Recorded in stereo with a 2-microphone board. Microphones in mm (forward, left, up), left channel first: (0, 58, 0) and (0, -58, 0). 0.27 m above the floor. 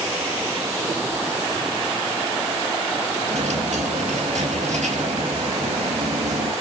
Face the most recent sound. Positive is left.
turn(degrees=-85)